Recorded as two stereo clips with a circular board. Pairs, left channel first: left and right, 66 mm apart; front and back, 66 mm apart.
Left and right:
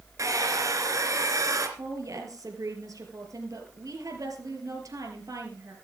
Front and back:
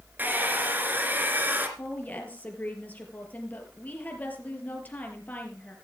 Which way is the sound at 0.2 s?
120° right.